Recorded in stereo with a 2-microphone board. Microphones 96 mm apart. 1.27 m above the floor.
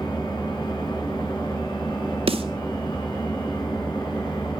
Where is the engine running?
50° left (ahead or behind), 8 m.